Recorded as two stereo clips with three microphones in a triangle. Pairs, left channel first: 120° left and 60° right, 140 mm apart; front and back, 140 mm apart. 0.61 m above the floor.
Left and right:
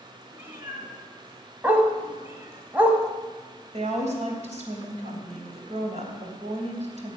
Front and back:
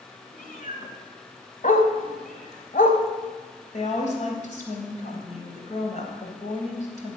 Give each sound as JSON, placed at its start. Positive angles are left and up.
{"t": 0.3, "sound": "a cat meowing", "azimuth_deg": 15, "distance_m": 2.5}
{"t": 1.6, "sound": "a dog barking", "azimuth_deg": 20, "distance_m": 1.4}
{"t": 3.7, "sound": "a woman speaking", "azimuth_deg": -25, "distance_m": 3.5}